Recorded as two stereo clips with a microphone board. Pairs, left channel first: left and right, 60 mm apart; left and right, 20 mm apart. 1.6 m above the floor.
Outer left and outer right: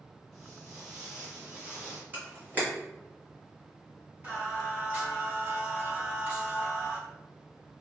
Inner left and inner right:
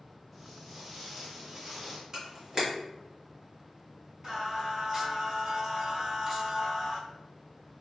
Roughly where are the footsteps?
Centre.